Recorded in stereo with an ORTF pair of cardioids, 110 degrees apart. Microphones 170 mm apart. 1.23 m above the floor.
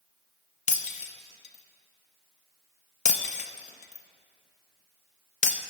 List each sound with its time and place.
0.7 s breaking glass: 45° left, 0.8 m